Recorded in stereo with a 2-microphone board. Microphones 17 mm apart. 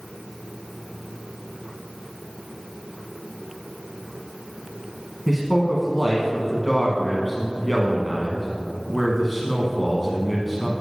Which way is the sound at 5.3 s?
5° left (ahead or behind).